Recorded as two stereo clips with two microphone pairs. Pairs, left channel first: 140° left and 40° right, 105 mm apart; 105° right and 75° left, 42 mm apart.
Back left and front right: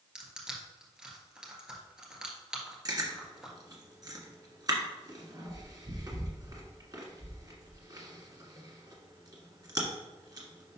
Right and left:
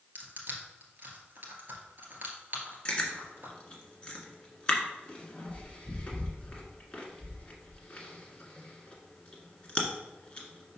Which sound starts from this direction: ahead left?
Crushing, at 0.1 s.